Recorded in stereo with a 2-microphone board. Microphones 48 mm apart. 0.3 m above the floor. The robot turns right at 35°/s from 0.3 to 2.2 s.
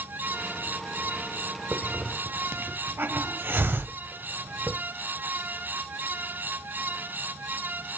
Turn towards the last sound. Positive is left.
turn(degrees=-50)  # may be behind; listen again after turning